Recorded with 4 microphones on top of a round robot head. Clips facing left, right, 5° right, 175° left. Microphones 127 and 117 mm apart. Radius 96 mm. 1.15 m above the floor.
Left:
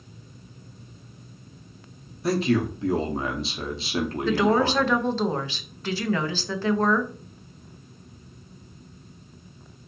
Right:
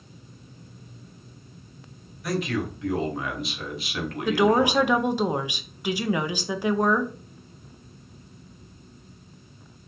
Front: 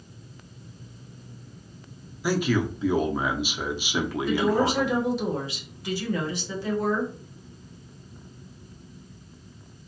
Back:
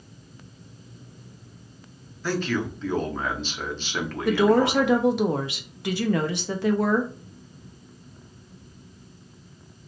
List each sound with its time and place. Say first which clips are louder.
2.2 s a man speaking: left 5 dB, front 2 dB; 65° left, 0.6 m
4.2 s a woman speaking: right 2 dB, back 5 dB; 165° right, 0.5 m